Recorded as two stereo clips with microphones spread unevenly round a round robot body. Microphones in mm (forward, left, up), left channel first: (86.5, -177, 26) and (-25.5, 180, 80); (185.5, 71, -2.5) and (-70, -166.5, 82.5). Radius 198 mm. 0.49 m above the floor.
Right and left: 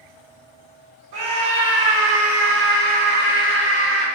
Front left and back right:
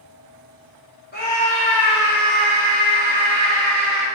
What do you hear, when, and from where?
1.1 s a scream: 90° left, 1.6 m; by 4.1 s straight behind, 1.3 m